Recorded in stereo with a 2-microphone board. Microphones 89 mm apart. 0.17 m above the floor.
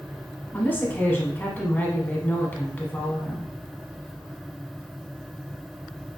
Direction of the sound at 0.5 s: 25° left (ahead or behind).